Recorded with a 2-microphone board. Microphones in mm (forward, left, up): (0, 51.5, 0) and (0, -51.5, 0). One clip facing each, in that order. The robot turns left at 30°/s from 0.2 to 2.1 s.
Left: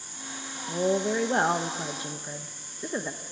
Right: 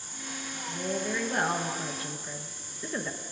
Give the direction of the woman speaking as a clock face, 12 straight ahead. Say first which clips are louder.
Left 7 dB; 10 o'clock.